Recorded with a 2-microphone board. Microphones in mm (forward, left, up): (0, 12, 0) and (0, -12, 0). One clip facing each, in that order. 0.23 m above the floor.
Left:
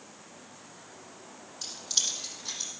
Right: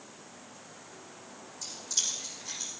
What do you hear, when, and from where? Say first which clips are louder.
1.6 s keys jangling: left 3 dB; 50° left (ahead or behind), 5.5 m